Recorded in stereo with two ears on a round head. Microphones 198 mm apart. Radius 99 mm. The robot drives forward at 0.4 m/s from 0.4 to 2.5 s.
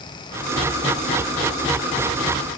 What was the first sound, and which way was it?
Only background noise.